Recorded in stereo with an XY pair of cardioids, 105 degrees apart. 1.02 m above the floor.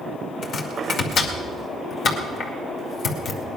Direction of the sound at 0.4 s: 55° left.